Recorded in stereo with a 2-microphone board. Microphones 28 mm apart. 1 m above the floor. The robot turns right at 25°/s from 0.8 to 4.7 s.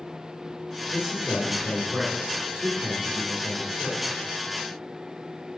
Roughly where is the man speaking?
Behind right.